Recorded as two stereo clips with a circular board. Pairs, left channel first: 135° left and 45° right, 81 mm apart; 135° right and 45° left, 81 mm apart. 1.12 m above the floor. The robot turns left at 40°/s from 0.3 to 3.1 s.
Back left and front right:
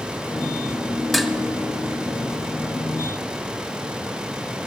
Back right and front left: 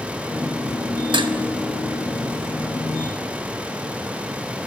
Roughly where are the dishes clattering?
Ahead left.